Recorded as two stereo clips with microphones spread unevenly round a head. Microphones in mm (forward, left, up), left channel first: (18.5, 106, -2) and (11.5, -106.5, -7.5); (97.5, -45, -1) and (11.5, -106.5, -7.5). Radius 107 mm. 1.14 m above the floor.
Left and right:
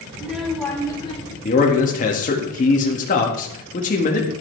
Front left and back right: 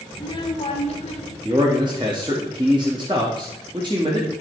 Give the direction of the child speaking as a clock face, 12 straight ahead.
12 o'clock.